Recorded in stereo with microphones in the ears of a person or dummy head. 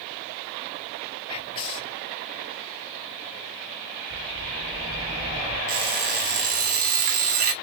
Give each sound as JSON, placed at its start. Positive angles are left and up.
{"t": 1.3, "sound": "whispering", "side_deg": 25, "distance_m": 0.6}
{"t": 4.1, "sound": "a bird", "side_deg": -75, "distance_m": 1.3}
{"t": 5.7, "sound": "an alarm clock", "side_deg": -55, "distance_m": 1.5}